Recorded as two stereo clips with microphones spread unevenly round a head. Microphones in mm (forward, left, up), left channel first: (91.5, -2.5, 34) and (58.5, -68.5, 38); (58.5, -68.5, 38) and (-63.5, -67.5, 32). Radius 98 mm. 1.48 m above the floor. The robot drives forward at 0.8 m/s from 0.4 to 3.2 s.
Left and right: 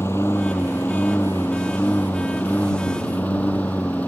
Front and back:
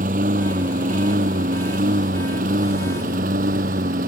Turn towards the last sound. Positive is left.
turn(degrees=145)